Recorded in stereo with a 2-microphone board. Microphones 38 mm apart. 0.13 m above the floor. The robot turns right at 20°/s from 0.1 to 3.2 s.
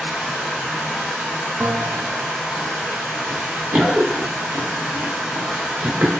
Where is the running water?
130° right, 1.2 m; by 6.2 s 65° right, 1.2 m.